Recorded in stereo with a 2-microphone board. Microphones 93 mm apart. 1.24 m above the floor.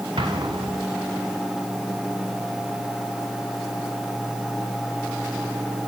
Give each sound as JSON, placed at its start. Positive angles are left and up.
{"t": 0.2, "sound": "an explosion", "side_deg": -75, "distance_m": 2.0}